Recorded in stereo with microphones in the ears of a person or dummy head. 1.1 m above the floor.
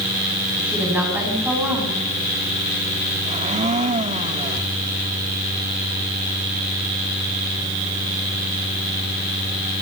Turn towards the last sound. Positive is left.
turn(degrees=-30)  # may be behind; listen again after turning